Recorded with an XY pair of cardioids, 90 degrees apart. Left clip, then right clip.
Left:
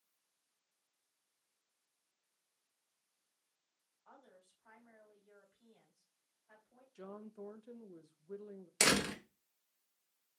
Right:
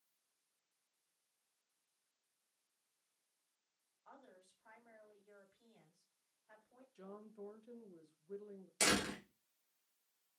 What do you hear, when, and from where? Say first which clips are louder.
4.0 s a woman speaking: even; 25° right, 2.5 m
7.0 s a woman speaking: left 4 dB; 40° left, 0.6 m
8.8 s a door slam: left 4 dB; 65° left, 1.0 m